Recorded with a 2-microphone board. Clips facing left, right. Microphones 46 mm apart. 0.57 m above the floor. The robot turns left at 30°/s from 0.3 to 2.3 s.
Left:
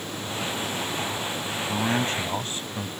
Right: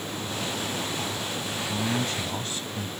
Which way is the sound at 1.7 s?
50° left (ahead or behind).